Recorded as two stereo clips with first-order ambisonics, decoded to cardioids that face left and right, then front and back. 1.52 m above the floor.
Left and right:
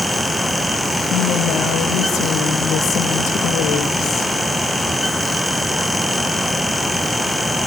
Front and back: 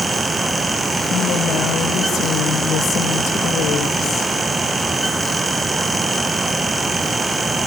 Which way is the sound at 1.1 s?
50° left.